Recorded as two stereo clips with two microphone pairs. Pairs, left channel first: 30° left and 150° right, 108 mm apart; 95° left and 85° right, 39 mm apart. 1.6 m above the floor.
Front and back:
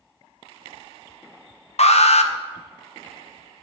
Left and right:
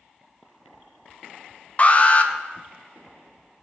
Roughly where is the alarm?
Ahead left.